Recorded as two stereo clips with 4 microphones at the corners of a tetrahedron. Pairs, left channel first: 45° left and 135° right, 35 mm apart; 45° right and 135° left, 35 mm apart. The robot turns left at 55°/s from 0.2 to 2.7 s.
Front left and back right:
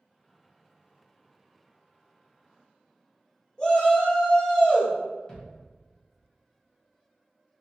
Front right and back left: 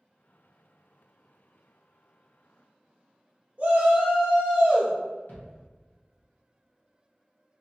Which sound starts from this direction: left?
A shout, at 3.6 s.